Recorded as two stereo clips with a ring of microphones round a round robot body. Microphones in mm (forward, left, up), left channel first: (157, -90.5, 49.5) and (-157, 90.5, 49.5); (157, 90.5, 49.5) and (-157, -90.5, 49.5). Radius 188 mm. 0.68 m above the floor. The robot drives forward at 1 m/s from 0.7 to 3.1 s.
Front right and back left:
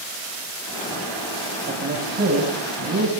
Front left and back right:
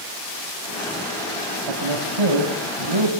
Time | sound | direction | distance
1.7 | a man speaking | 145° right | 5 m